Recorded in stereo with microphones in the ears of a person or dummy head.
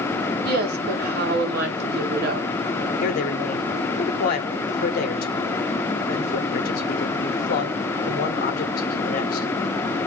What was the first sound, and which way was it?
A woman speaking, 60° right (ahead or behind).